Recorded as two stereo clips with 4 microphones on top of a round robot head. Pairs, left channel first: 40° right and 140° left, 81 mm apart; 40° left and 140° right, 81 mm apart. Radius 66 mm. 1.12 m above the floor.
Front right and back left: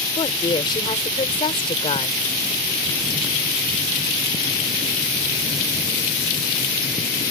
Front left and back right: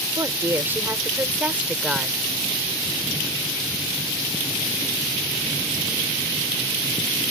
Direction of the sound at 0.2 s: 80° right.